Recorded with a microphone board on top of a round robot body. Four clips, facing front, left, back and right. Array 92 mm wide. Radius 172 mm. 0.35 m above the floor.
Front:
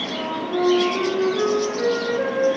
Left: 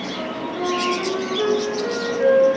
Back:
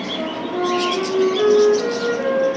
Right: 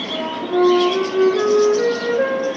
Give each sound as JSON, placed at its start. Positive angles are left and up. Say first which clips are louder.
{"t": 0.1, "sound": "a flute", "louder": "right 10 dB, front 1 dB", "azimuth_deg": -90, "distance_m": 9.0}